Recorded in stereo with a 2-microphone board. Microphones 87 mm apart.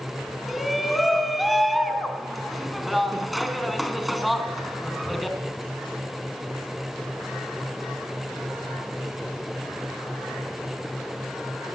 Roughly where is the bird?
No bird in this recording.